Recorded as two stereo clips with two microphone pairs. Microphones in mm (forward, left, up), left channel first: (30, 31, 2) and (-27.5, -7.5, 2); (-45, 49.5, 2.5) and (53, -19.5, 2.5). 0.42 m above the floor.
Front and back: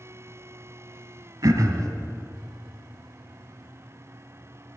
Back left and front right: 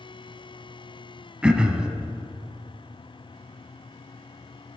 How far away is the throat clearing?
About 0.7 m.